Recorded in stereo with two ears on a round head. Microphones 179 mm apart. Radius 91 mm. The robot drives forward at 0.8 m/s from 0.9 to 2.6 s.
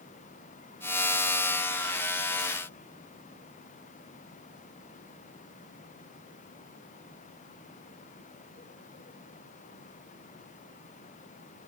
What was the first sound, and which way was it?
Only background noise.